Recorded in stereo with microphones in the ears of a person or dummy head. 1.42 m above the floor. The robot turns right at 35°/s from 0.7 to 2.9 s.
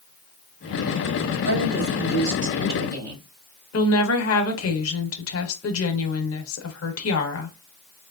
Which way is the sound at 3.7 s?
70° left (ahead or behind).